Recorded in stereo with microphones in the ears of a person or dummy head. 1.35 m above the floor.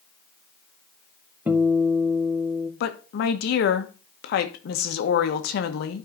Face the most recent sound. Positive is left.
turn(degrees=60)  # may be behind; listen again after turning